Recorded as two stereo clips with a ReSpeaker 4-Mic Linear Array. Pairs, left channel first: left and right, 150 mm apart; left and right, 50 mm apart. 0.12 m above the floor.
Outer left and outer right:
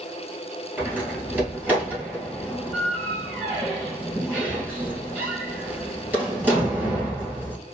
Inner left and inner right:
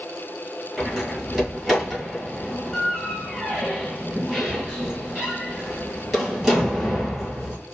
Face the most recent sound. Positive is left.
turn(degrees=-10)  # may be behind; listen again after turning